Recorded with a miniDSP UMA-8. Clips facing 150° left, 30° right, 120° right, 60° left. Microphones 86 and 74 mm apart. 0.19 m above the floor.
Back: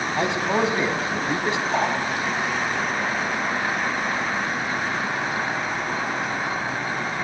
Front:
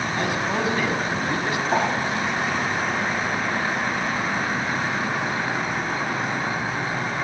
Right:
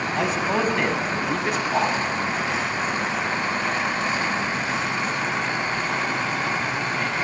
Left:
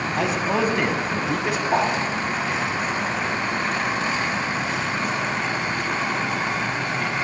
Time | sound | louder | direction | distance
0.2 | a man speaking | back 4 dB, left 1 dB | 150° left | 1.1 m
1.7 | a whoosh | front 2 dB, left 2 dB | 10° left | 6 m